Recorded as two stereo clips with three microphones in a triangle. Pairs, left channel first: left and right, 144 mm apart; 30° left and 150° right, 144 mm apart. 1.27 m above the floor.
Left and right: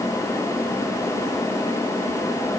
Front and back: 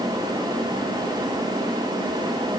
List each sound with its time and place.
Only background noise.